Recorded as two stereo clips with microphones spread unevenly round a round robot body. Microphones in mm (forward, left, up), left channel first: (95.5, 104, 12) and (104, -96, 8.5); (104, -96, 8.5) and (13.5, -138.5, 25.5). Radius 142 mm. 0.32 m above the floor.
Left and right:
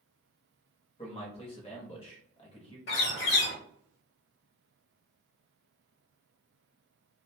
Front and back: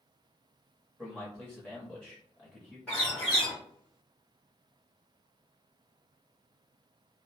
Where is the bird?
95° left, 0.8 m.